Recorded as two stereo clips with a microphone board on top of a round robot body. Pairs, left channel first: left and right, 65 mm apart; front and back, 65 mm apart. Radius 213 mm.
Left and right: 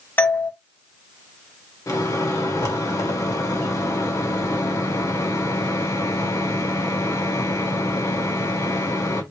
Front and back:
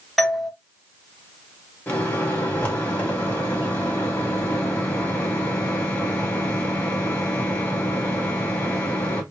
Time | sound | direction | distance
0.2 | a doorbell | 90° left | 1.2 m
1.9 | a microwave | 65° left | 1.7 m